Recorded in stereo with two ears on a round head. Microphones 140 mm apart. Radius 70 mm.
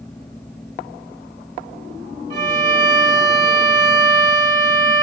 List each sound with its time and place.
2.3 s a violin: 50° right (ahead or behind), 1.5 m